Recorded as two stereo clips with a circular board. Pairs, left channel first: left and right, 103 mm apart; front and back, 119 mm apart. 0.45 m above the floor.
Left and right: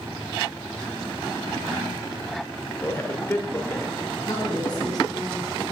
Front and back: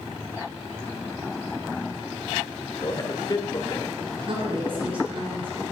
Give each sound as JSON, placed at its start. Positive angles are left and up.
{"t": 2.8, "sound": "a man speaking", "azimuth_deg": 35, "distance_m": 1.4}
{"t": 4.3, "sound": "a woman speaking", "azimuth_deg": 140, "distance_m": 5.5}